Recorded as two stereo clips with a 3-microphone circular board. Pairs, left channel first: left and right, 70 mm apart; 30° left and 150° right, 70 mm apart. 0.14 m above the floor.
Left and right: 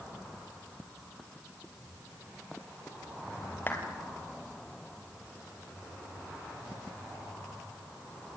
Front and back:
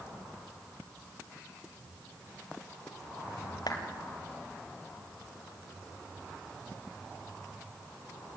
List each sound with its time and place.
3.7 s a clap: 30° left, 3 m